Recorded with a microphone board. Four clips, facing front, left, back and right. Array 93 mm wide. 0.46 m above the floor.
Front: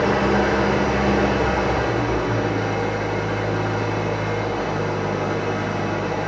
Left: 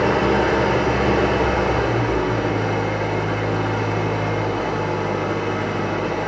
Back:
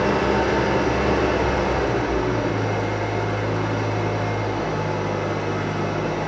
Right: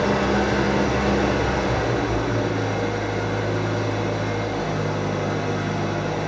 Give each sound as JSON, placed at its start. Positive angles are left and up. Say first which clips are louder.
{"t": 0.0, "sound": "an engine running", "louder": "left 3 dB, front 1 dB", "azimuth_deg": 85, "distance_m": 1.3}